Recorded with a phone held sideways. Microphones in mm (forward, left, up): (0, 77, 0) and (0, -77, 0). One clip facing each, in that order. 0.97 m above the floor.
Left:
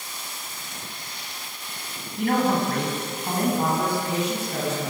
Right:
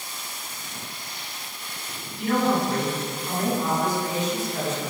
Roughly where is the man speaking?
Left.